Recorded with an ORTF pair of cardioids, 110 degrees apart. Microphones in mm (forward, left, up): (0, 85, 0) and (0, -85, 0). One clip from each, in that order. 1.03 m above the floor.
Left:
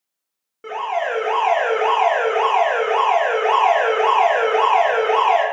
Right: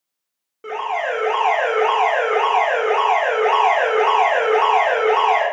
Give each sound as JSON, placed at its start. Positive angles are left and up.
{"t": 0.6, "sound": "an alarm", "azimuth_deg": 5, "distance_m": 1.1}